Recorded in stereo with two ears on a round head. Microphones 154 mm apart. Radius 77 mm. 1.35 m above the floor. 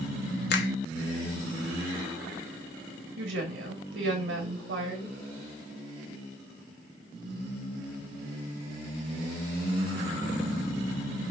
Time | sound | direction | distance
0.5 | a finger snap | 65° left (ahead or behind) | 1.4 m
3.2 | a woman speaking | 70° right (ahead or behind) | 2.5 m